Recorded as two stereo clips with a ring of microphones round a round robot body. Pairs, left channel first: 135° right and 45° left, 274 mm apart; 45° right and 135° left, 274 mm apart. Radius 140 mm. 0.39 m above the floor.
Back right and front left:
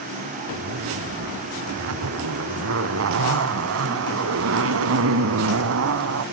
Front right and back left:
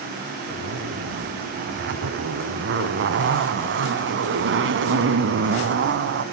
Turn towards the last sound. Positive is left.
turn(degrees=85)